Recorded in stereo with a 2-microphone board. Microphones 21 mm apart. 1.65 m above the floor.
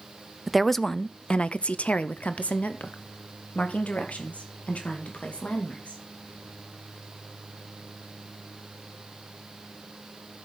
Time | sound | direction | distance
0.5 | a woman speaking | 5° right (ahead or behind) | 0.6 m